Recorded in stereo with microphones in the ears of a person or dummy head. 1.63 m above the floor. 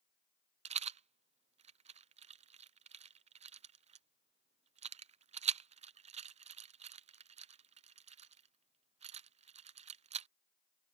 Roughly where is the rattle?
Right.